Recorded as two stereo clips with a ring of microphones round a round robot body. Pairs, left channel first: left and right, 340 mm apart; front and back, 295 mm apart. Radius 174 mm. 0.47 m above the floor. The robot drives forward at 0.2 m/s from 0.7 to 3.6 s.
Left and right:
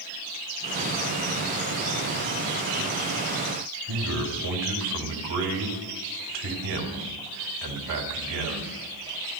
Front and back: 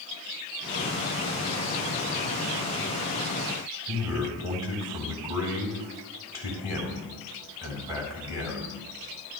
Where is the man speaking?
100° right, 4 m.